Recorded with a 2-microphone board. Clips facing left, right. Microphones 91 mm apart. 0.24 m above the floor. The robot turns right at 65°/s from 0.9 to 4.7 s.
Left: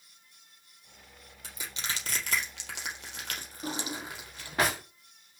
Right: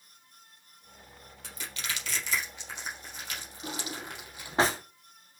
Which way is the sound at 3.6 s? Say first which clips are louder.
Left 3 dB; 40° left (ahead or behind).